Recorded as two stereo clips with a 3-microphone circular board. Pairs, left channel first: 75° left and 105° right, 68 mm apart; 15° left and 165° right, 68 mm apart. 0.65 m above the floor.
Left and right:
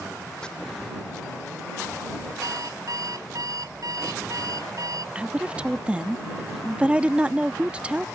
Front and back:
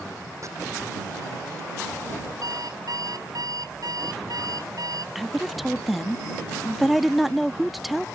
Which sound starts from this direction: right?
A woman speaking, at 5.2 s.